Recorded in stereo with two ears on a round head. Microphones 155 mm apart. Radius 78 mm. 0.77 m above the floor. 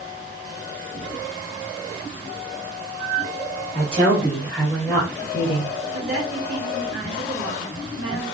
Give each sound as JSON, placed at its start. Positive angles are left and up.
{"t": 3.7, "sound": "a woman speaking", "side_deg": -45, "distance_m": 1.5}
{"t": 5.9, "sound": "a woman speaking", "side_deg": -60, "distance_m": 1.4}